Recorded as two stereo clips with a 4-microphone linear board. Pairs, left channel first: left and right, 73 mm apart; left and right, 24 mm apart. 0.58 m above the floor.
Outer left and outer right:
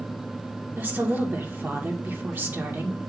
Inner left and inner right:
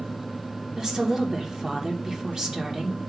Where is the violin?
I don't hear a violin.